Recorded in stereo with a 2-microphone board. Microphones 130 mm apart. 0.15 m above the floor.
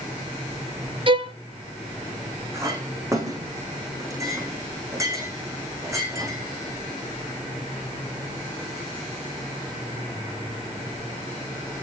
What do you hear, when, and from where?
1.1 s a violin: 40° right (ahead or behind), 0.8 m
2.5 s a clink: 20° right (ahead or behind), 5.5 m